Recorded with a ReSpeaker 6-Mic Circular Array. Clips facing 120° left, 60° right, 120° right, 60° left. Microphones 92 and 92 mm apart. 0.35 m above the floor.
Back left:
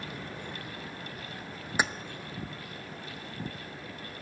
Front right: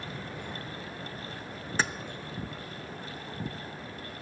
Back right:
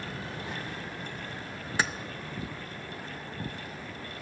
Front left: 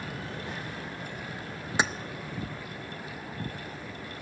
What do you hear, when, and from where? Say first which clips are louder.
1.8 s keys jangling: back left 1 dB, front left 2 dB; 75° left, 0.5 m